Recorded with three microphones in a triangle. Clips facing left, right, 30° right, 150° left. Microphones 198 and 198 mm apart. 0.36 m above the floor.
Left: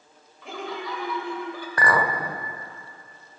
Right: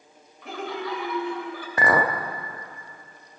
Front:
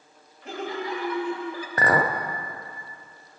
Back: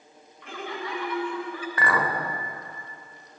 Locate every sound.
0.4 s laughter: straight ahead, 1.4 m
1.8 s a clink: 30° right, 0.6 m